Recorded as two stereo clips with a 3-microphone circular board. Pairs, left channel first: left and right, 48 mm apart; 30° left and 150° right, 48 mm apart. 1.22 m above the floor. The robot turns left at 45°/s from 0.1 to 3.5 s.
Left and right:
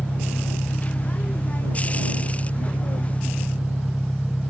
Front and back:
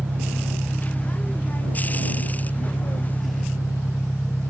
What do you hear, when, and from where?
0.0 s an engine running: 155° left; by 4.5 s 5° left